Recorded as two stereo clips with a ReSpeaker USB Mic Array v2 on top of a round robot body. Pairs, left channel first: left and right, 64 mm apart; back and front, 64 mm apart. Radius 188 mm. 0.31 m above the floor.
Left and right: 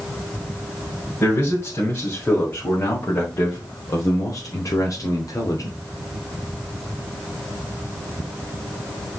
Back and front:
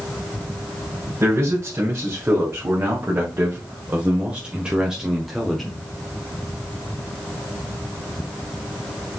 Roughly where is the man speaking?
Ahead left.